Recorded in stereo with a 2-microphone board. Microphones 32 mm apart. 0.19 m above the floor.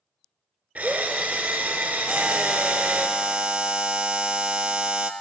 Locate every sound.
0.8 s a drill: 70° right (ahead or behind), 1.5 m
2.1 s a buzzer: 30° right (ahead or behind), 0.8 m